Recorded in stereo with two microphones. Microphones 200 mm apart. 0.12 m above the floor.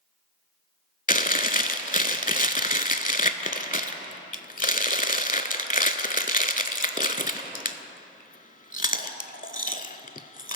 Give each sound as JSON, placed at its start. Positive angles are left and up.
{"t": 1.1, "sound": "chewing", "side_deg": 40, "distance_m": 0.6}